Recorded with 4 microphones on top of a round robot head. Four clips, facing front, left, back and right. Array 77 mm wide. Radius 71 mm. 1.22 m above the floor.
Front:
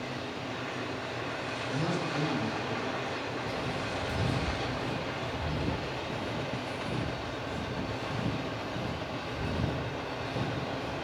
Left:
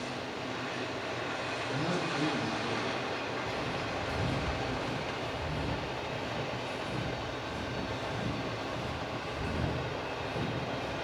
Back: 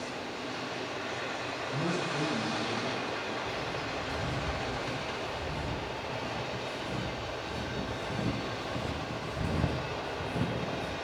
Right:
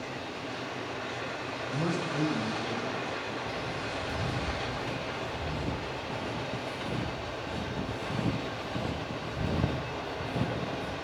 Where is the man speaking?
85° right, 6.5 m.